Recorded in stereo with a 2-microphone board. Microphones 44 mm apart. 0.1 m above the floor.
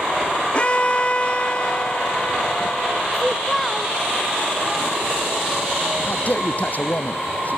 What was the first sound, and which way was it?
A violin, 30° left (ahead or behind).